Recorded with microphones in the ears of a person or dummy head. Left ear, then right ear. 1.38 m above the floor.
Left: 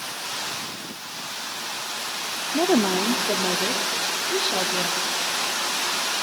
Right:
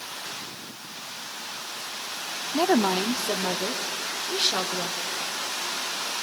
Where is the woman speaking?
30° right (ahead or behind), 0.5 m; by 4.9 s 35° right (ahead or behind), 1.6 m.